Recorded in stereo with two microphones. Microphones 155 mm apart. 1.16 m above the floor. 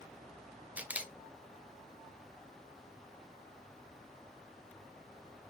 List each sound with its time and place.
0.8 s a camera shutter: 10° right (ahead or behind), 0.6 m